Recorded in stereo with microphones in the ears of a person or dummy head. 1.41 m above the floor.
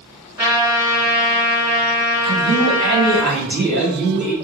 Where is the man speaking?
55° right (ahead or behind), 1.2 m.